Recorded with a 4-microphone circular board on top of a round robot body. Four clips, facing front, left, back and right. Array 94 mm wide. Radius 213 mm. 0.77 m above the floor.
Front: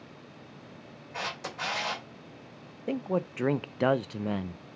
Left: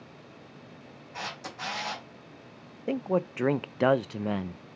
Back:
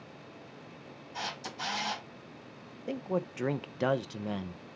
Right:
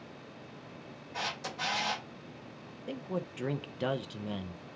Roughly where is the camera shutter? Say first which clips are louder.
Right 1 dB, front 3 dB; ahead.